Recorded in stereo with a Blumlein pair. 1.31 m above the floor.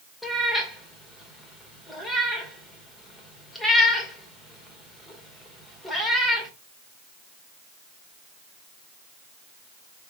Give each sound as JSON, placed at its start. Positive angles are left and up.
{"t": 0.2, "sound": "a cat meowing", "azimuth_deg": 10, "distance_m": 2.0}